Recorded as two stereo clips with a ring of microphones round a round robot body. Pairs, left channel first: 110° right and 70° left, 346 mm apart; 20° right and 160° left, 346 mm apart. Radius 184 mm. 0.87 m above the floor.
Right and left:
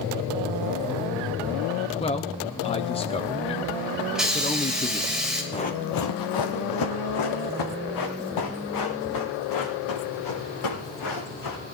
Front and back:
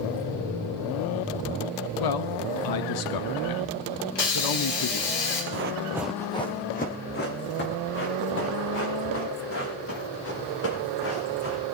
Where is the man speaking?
40° right, 0.9 m.